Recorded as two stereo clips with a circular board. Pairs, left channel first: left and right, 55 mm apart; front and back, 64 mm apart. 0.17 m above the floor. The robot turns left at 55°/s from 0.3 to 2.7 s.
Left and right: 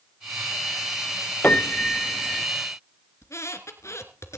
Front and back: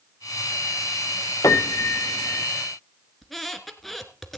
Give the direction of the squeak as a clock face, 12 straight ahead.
9 o'clock.